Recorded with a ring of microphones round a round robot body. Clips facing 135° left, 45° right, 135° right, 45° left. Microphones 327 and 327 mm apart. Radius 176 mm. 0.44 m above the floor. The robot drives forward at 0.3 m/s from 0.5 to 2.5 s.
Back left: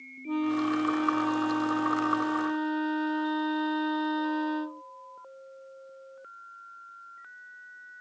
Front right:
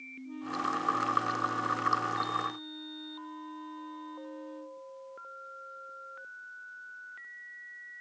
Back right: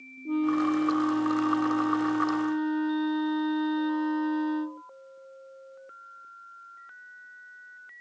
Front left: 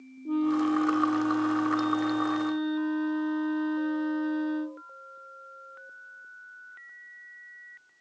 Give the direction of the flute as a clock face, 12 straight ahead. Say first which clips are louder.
Back left 12 dB, even; 8 o'clock.